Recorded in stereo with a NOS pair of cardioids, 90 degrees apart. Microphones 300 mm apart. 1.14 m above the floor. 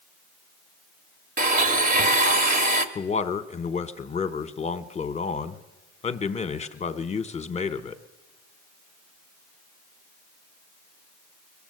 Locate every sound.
1.4 s a blender: 30° right, 1.1 m
3.0 s a man speaking: 25° left, 1.0 m